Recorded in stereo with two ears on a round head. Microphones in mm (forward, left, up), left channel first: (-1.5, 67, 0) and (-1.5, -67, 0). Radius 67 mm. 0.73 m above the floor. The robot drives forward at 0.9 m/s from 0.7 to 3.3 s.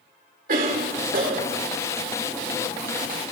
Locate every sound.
0.5 s a cough: 65° right (ahead or behind), 3 m; by 1.6 s 70° right (ahead or behind), 2.5 m